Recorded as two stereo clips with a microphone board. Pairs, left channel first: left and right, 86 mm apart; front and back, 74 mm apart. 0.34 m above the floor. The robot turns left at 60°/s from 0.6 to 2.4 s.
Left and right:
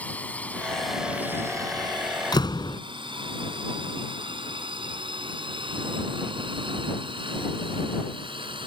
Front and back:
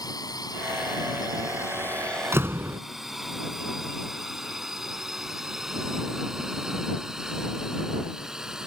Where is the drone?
20° left; by 8.7 s 100° right.